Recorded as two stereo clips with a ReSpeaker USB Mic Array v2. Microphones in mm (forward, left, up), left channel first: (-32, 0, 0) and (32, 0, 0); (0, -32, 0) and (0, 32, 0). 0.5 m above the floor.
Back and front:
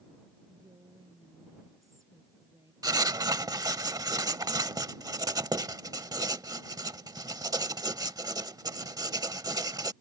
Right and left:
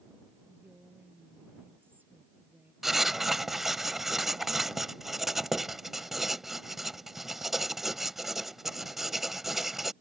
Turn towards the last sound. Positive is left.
turn(degrees=5)